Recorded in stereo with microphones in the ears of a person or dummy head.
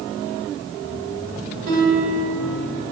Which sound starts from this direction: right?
A guitar, at 1.7 s.